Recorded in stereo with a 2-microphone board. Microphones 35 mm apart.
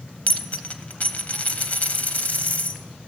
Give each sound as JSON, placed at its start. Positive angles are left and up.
{"t": 0.3, "sound": "a dropped coin", "side_deg": 45, "distance_m": 0.8}